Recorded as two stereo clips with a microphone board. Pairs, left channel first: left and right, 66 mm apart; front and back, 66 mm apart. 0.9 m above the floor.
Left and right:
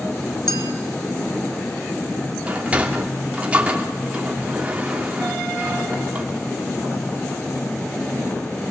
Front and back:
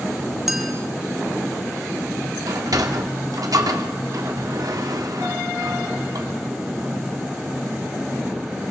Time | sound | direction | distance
0.5 | a clink | 90° left | 1.7 m
2.5 | a sliding door | 160° right | 2.5 m